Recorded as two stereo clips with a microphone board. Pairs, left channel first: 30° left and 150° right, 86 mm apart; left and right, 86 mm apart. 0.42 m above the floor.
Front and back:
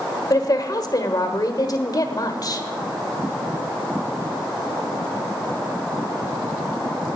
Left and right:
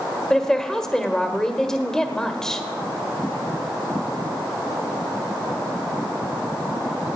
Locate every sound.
0.3 s a woman speaking: 10° left, 1.3 m